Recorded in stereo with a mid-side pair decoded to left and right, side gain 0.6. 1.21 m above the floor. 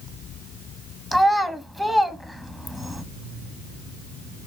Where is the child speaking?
5° left, 0.9 m.